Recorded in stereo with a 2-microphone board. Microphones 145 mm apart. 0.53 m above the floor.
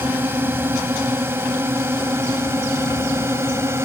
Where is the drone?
15° right (ahead or behind); by 3.8 s 20° right (ahead or behind).